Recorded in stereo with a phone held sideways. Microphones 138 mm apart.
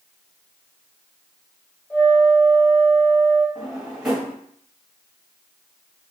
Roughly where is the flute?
Centre.